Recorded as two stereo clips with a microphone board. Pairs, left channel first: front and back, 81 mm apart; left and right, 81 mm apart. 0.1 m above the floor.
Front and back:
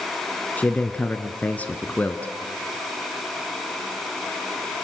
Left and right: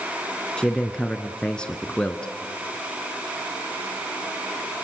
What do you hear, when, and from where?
0.6 s a man speaking: 30° left, 1.2 m